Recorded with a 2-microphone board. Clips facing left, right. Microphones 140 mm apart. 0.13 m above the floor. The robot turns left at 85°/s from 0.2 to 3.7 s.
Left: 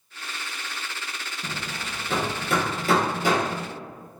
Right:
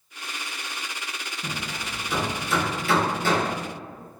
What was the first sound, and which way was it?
Hammering, 10° left (ahead or behind).